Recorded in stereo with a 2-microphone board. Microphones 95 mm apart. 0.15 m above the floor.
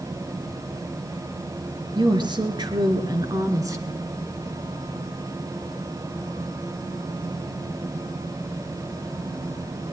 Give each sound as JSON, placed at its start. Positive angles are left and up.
{"t": 1.9, "sound": "a woman speaking", "side_deg": -55, "distance_m": 2.0}